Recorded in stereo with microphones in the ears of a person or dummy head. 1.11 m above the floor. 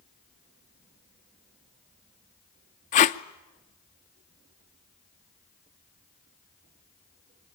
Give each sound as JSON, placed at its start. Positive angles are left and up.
{"t": 2.9, "sound": "tape being pulled", "side_deg": 35, "distance_m": 0.6}